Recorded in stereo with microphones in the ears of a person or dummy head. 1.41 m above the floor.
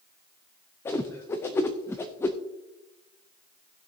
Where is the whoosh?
10° left (ahead or behind), 0.6 m.